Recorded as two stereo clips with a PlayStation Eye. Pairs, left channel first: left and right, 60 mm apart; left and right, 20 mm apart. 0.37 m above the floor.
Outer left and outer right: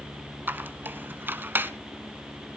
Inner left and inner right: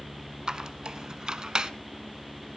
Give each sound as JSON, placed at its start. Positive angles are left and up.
{"t": 0.5, "sound": "a squeak", "side_deg": -35, "distance_m": 0.9}